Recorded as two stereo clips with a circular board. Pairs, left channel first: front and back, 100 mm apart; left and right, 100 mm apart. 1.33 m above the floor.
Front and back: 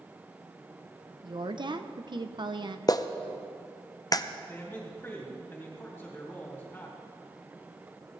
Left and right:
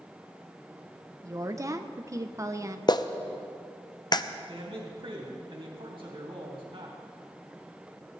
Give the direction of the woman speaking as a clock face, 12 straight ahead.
5 o'clock.